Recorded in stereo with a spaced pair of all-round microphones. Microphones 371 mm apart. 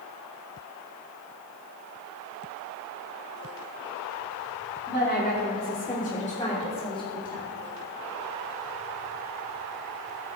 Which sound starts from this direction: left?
A woman speaking, at 4.9 s.